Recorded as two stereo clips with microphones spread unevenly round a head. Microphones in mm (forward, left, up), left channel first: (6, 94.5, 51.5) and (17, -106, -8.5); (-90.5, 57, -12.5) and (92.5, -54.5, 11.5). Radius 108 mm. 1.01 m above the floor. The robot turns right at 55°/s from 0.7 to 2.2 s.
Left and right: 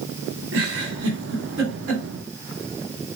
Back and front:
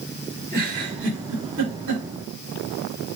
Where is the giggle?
105° right, 2.5 m; by 2.0 s 35° right, 2.5 m.